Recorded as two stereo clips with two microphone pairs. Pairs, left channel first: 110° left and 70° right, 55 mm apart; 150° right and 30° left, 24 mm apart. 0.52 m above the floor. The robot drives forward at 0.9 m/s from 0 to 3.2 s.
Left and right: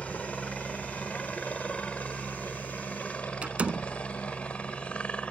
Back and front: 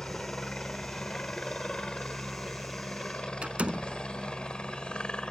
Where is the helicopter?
175° left.